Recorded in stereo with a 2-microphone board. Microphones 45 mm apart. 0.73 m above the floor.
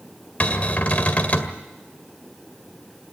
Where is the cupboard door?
35° left (ahead or behind), 2.0 m.